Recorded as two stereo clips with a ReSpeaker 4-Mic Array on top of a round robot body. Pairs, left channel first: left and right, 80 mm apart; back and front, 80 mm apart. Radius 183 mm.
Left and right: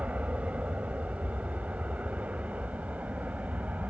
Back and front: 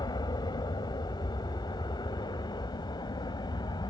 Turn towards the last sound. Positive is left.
turn(degrees=-160)